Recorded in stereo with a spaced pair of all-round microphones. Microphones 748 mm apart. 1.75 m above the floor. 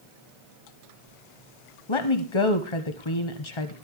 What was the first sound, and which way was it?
A woman speaking, 40° left (ahead or behind).